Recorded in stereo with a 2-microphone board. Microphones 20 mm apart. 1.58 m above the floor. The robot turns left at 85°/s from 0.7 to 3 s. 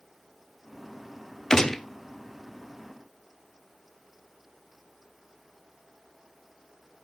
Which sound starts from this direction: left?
A gunshot, at 1.5 s.